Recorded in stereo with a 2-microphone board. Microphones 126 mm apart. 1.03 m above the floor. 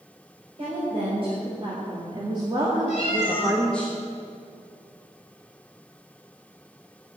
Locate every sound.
0.6 s a woman speaking: 50° right (ahead or behind), 4.5 m; by 3.9 s 15° left (ahead or behind), 1.2 m
2.9 s a cat meowing: 50° left (ahead or behind), 3.5 m